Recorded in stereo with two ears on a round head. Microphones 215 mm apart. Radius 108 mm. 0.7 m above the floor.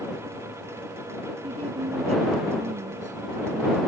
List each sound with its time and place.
1.4 s a woman speaking: 25° right (ahead or behind); by 3.8 s 35° right (ahead or behind)